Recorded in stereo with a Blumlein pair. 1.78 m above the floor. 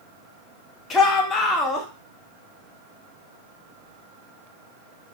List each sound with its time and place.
0.9 s a shout: 25° left, 1.1 m